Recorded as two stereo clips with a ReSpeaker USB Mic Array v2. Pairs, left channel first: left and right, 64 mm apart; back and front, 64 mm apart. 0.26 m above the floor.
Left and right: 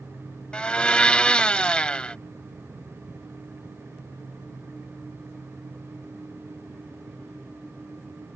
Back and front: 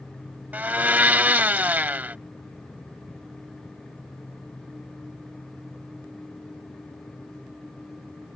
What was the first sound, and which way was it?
A blender, 30° left.